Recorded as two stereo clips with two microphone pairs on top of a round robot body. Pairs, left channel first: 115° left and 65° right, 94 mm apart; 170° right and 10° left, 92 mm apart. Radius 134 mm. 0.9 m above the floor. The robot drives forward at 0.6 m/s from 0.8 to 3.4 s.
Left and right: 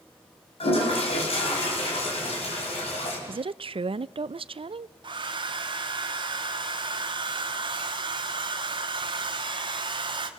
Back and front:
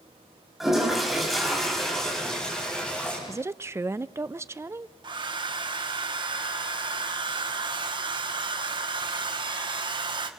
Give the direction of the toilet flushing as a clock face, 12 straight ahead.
9 o'clock.